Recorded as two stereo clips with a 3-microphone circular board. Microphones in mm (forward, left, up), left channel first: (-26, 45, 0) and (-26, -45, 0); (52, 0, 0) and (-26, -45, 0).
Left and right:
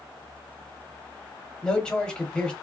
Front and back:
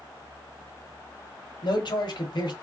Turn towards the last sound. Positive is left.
turn(degrees=10)